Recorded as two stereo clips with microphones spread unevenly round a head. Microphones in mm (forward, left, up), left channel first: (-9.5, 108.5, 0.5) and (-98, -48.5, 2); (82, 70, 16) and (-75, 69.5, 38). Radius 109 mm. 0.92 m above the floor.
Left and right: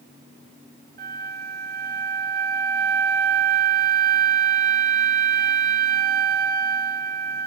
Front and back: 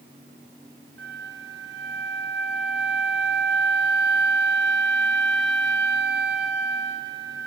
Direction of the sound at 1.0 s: 145° right.